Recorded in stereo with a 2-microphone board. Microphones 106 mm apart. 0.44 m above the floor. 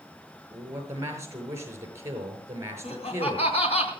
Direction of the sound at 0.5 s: 25° right (ahead or behind).